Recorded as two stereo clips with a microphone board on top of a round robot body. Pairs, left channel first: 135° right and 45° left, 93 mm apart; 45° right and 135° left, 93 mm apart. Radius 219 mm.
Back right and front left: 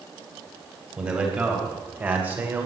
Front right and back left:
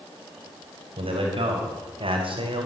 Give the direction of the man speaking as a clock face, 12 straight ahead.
8 o'clock.